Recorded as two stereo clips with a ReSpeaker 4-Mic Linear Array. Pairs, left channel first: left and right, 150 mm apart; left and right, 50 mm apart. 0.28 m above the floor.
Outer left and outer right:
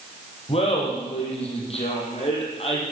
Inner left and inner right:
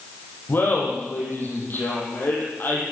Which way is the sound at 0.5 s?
40° left (ahead or behind).